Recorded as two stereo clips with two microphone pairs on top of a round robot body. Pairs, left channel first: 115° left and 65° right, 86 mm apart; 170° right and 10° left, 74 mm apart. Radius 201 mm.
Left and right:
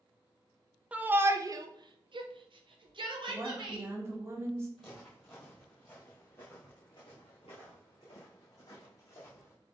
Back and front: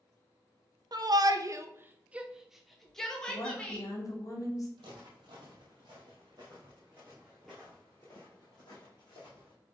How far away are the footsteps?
About 1.8 m.